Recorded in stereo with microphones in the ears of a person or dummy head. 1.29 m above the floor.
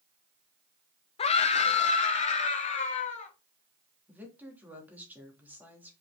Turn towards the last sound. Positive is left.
turn(degrees=-5)  # may be behind; listen again after turning